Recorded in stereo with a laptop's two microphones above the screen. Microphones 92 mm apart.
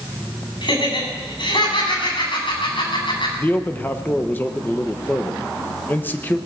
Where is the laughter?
60° left (ahead or behind), 6.5 m.